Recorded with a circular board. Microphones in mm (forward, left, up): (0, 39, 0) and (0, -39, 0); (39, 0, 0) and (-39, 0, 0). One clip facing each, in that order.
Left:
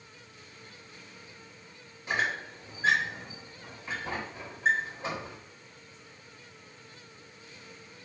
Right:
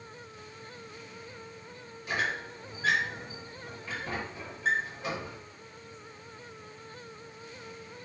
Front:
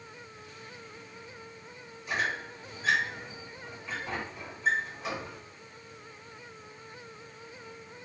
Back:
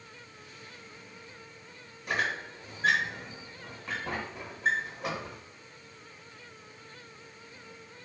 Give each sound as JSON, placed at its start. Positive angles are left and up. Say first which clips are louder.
{"t": 2.1, "sound": "a squeak", "louder": "left 1 dB, back 1 dB", "azimuth_deg": 155, "distance_m": 0.9}